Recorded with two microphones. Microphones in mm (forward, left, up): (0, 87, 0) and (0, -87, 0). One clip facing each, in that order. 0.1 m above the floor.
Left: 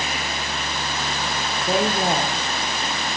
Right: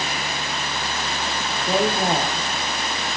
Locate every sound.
1.7 s a woman speaking: centre (ahead or behind), 2 m